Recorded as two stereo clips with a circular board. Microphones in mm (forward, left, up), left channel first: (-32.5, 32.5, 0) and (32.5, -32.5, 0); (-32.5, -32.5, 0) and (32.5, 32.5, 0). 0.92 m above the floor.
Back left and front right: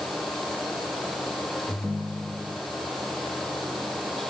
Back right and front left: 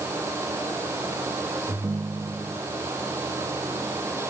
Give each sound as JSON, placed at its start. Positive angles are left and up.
{"t": 1.7, "sound": "a ringtone", "azimuth_deg": 75, "distance_m": 5.0}